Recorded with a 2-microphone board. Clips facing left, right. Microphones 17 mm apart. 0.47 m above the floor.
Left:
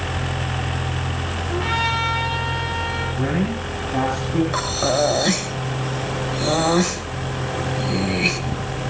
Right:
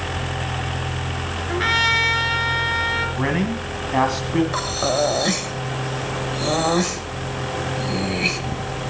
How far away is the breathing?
About 1.5 m.